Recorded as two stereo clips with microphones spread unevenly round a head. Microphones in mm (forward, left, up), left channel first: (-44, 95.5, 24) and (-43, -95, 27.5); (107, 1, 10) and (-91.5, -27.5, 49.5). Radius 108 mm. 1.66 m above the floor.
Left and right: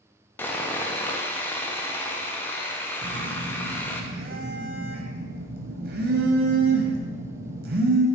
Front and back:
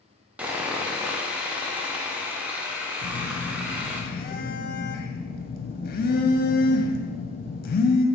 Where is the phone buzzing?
40° right, 0.7 m.